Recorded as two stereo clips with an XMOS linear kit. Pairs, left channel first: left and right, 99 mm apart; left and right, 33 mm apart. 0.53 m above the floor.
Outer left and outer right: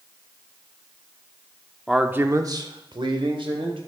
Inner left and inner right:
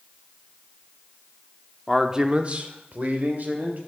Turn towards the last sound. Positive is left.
turn(degrees=-65)  # may be behind; listen again after turning